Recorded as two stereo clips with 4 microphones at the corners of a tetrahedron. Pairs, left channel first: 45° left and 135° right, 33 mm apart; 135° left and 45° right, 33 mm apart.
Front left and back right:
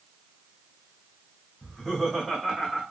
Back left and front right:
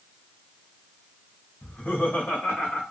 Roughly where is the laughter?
Behind left.